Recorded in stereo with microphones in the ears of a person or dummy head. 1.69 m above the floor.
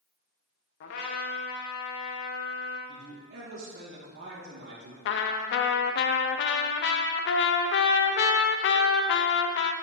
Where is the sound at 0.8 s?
45° left (ahead or behind), 0.9 m.